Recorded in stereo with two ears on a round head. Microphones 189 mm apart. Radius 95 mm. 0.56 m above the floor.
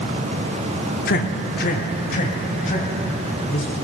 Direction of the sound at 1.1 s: 45° left (ahead or behind).